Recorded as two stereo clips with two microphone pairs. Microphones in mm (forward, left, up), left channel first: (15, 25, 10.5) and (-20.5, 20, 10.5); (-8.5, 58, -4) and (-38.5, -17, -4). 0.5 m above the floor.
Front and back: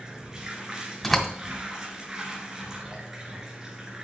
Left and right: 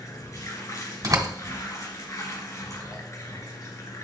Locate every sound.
0.0 s running water: 115° left, 1.6 m
1.0 s a door slam: 75° right, 1.7 m